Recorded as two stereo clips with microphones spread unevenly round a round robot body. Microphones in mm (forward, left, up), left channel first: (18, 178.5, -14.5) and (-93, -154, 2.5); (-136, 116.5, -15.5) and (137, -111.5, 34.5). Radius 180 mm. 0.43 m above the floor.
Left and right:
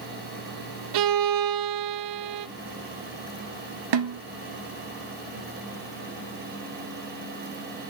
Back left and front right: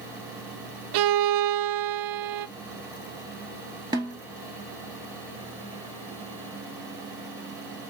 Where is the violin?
75° right, 0.6 m.